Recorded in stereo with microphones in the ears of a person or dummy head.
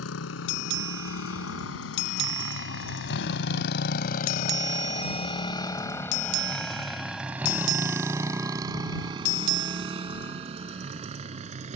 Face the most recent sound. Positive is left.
turn(degrees=-40)  # may be behind; listen again after turning